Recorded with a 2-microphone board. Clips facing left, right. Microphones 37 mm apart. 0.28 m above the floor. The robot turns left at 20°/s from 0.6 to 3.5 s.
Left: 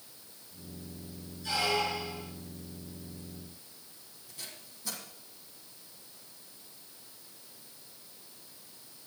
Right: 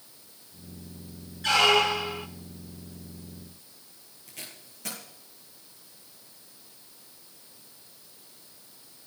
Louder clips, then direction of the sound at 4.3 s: Right 3 dB; 70° right (ahead or behind).